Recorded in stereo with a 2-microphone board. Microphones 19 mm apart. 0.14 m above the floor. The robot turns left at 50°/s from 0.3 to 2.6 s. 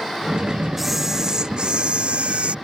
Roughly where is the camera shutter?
Ahead.